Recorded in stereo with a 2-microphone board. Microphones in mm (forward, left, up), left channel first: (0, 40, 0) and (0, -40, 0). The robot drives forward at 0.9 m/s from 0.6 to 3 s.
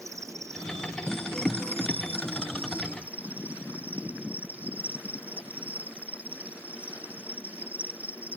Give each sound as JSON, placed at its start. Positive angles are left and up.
{"t": 0.0, "sound": "an insect", "side_deg": -40}